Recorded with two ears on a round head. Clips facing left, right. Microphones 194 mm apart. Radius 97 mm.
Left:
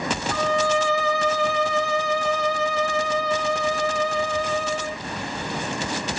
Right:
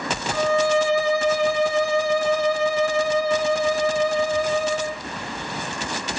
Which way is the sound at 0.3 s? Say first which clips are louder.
Right 4 dB; 10° right (ahead or behind).